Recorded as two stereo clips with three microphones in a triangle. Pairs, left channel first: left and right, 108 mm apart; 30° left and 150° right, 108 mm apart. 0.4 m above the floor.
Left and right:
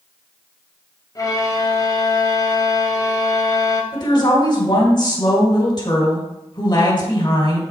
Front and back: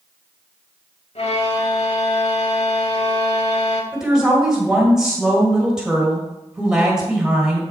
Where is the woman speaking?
130° left, 1.8 m.